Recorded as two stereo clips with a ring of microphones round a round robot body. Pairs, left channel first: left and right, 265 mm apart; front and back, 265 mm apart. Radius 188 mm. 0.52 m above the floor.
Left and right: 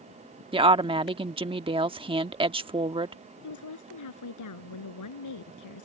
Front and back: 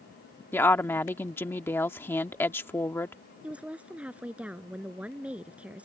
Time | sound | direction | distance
0.5 | a woman speaking | 65° right | ?
3.4 | a woman speaking | 95° left | ?